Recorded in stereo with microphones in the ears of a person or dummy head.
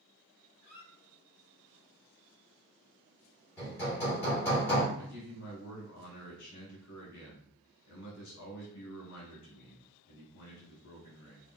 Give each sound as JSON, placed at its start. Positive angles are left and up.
{"t": 0.6, "sound": "a squeak", "side_deg": 50, "distance_m": 2.5}
{"t": 3.6, "sound": "hammering", "side_deg": 10, "distance_m": 2.0}
{"t": 5.0, "sound": "a man speaking", "side_deg": 75, "distance_m": 2.0}